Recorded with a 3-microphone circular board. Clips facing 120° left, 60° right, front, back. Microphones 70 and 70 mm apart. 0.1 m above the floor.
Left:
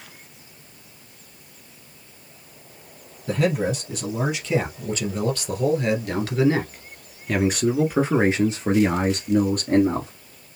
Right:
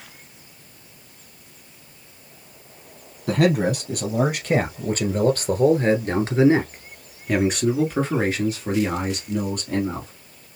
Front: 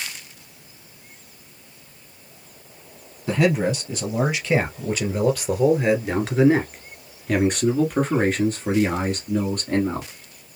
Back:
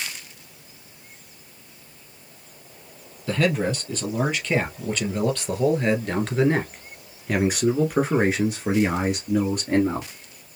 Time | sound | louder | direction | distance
3.3 | a man speaking | right 3 dB, front 3 dB | 75° right | 2.5 m